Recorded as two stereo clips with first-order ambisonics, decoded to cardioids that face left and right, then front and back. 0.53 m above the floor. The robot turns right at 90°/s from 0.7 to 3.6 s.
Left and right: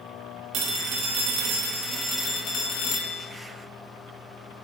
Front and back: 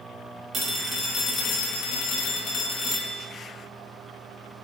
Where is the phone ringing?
120° right, 0.6 m; by 3.2 s 110° left, 0.6 m.